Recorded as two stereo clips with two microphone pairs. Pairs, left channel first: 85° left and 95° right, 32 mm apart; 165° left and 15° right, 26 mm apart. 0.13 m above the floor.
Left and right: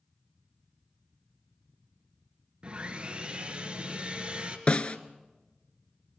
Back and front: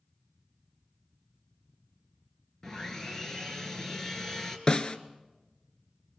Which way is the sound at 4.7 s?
115° left.